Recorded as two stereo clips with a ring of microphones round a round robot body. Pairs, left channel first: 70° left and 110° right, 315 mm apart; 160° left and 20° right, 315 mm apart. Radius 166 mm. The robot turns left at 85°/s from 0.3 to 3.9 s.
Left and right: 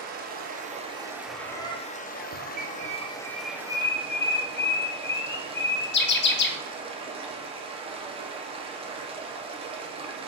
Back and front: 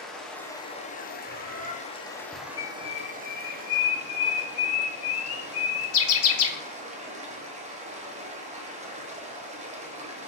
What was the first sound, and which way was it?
Running water, 115° right.